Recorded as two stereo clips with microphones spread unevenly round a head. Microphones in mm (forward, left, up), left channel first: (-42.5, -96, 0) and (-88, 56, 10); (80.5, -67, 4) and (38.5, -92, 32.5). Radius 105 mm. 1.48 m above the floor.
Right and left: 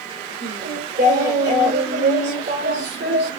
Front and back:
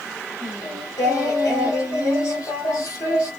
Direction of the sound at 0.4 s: 70° left.